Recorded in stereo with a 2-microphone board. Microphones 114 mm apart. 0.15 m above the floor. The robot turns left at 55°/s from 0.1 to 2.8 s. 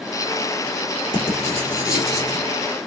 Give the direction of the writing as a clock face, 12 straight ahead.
4 o'clock.